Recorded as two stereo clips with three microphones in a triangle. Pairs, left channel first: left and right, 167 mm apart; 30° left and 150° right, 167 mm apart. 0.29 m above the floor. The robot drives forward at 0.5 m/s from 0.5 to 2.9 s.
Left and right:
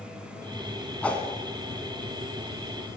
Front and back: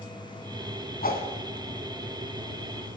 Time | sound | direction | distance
1.0 | a whoosh | 10° left | 1.5 m